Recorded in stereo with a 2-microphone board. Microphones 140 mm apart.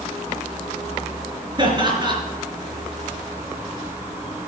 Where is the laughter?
35° right (ahead or behind), 4 m.